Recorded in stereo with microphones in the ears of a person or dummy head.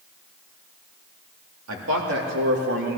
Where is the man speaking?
85° right, 3.5 m; by 3.0 s 65° right (ahead or behind), 2 m.